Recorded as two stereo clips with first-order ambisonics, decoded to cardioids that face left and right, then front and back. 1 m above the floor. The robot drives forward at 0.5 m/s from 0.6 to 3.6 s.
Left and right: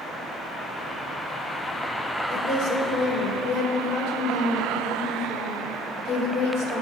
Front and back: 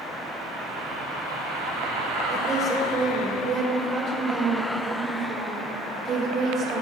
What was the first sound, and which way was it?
A woman speaking, 120° left.